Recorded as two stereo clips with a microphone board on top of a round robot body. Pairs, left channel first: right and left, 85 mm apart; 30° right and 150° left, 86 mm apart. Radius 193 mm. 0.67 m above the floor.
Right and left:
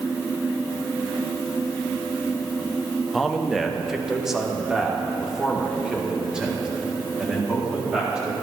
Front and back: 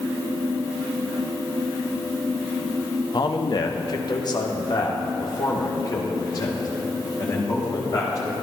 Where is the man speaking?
Straight ahead, 1.0 m; by 8.3 s 10° left, 3.5 m.